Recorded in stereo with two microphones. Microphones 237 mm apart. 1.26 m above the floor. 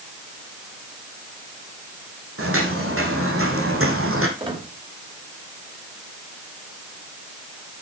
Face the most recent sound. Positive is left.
turn(degrees=-20)  # may be behind; listen again after turning